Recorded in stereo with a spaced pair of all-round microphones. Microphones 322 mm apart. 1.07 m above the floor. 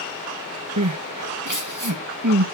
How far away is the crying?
About 1.6 m.